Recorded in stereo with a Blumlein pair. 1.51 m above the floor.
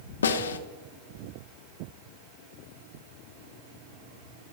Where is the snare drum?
65° left, 0.5 m.